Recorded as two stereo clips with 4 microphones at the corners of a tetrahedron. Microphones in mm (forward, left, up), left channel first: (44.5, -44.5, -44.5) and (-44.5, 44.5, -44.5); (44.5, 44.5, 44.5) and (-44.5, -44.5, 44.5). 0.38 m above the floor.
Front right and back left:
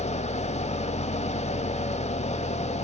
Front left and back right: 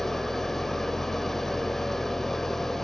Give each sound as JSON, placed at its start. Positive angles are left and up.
{"t": 0.0, "sound": "an engine running", "azimuth_deg": -40, "distance_m": 0.8}